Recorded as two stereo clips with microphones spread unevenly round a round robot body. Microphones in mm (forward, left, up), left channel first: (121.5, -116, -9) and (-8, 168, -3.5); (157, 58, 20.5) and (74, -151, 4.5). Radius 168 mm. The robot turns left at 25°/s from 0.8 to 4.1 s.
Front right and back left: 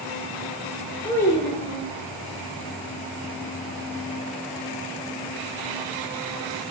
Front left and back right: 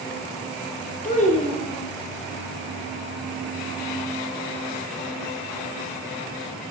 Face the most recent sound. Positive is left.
turn(degrees=-60)